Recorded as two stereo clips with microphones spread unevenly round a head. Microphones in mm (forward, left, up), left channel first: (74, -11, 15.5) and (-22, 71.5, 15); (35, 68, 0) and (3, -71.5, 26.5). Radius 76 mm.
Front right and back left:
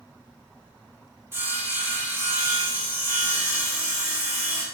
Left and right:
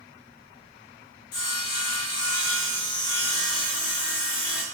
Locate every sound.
1.3 s sawing: 65° left, 3 m